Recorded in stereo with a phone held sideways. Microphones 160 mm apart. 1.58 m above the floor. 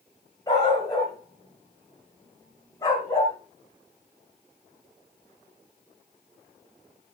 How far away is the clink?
I don't hear a clink.